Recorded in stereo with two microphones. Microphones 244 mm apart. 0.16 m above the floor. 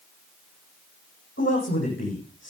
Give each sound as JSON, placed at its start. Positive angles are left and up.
{"t": 1.4, "sound": "a man speaking", "side_deg": 50, "distance_m": 8.5}